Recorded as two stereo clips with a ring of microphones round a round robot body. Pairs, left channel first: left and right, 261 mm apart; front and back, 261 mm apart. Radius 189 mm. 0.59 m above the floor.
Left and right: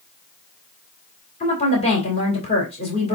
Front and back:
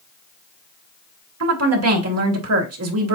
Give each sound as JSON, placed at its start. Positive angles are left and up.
{"t": 1.4, "sound": "a woman speaking", "azimuth_deg": 160, "distance_m": 3.0}